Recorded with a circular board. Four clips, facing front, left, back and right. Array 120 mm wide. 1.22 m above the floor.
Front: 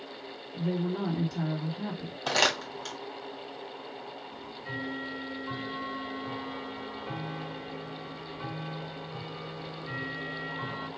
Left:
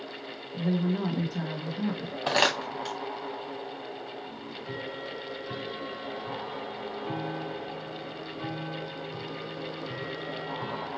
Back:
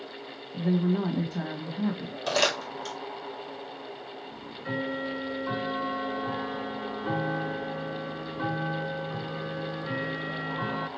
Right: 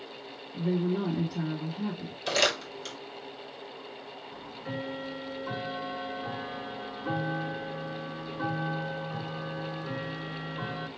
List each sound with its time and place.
0.5 s a woman speaking: 150° left, 1.6 m
2.3 s crumpling: 75° left, 1.7 m
4.3 s ticking: 155° right, 0.6 m